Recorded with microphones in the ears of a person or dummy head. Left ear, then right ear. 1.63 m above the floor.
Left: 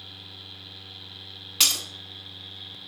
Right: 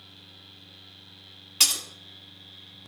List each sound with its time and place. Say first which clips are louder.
1.6 s breaking glass: left 1 dB; 10° left (ahead or behind), 1.8 m